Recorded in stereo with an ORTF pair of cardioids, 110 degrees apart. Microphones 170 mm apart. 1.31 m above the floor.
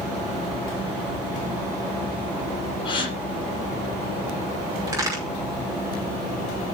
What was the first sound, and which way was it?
A gasp, 30° left.